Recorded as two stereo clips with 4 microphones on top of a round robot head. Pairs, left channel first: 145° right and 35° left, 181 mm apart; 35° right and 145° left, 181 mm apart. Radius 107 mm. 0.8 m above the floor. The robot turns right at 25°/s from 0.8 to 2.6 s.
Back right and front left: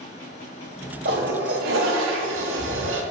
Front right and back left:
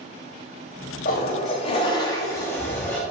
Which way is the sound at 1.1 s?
5° left.